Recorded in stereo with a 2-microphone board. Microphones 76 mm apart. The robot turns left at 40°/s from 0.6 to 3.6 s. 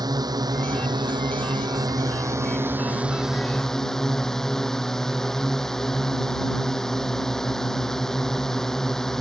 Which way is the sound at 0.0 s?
65° right.